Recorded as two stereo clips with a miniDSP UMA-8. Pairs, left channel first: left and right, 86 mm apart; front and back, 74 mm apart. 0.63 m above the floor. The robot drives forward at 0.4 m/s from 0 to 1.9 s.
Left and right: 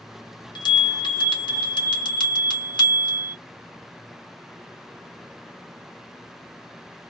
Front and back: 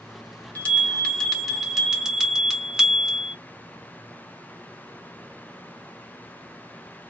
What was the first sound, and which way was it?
A bell, 65° left.